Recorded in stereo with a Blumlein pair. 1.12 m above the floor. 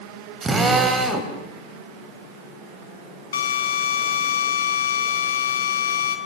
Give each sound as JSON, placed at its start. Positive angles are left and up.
{"t": 0.4, "sound": "a drill", "azimuth_deg": -20, "distance_m": 4.0}
{"t": 3.3, "sound": "a drill", "azimuth_deg": 65, "distance_m": 4.0}